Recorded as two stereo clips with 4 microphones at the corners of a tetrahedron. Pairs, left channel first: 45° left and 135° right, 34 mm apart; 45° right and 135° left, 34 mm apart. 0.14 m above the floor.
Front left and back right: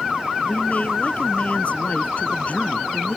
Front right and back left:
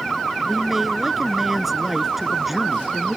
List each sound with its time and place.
0.5 s a man speaking: 55° left